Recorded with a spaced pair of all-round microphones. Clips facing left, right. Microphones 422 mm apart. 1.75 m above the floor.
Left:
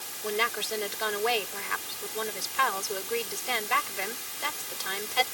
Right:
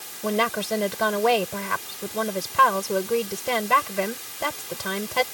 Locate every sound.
0.2 s a woman speaking: 75° right (ahead or behind)